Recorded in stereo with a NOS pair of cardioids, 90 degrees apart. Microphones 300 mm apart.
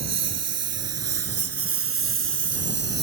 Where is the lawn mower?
60° right; by 3.0 s 35° right.